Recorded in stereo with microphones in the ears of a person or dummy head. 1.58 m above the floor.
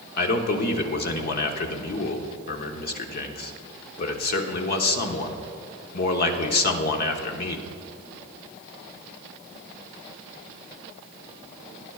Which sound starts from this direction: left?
A man speaking, at 0.2 s.